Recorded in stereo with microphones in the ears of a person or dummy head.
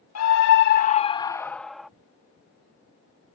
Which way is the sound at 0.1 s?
80° left.